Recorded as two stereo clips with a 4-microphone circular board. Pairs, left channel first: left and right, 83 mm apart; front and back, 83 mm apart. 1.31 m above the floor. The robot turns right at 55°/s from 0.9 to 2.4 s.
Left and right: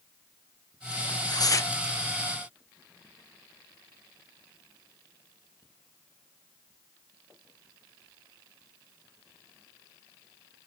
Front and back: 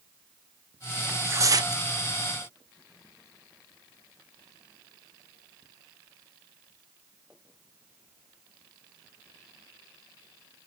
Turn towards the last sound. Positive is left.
turn(degrees=180)